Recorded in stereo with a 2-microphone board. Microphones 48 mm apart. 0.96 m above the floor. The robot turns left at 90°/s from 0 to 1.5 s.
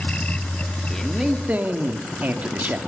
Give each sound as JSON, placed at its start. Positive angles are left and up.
{"t": 0.9, "sound": "a man speaking", "azimuth_deg": 15, "distance_m": 2.0}